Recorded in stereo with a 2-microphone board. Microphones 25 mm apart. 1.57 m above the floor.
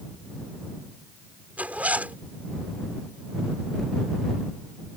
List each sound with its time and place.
1.6 s a zipper: 80° right